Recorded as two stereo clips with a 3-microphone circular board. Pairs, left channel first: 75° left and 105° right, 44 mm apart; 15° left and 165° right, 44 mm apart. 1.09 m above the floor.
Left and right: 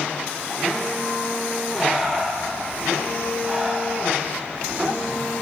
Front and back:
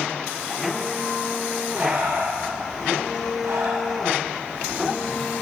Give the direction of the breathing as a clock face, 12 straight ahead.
7 o'clock.